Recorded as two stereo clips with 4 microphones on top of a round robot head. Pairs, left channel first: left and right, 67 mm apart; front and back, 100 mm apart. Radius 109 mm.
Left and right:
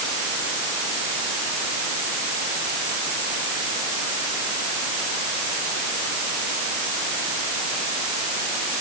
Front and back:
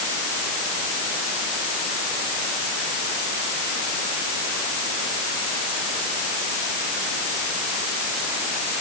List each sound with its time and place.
Only background noise.